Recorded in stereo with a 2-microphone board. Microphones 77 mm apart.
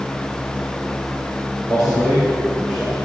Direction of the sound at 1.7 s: 10° right (ahead or behind).